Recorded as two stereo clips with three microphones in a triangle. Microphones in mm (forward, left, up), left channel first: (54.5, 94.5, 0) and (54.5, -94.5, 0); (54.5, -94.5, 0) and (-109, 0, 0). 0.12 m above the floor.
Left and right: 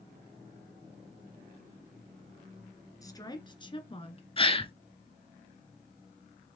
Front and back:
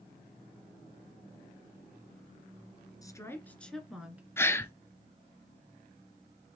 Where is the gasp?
40° left, 0.8 m.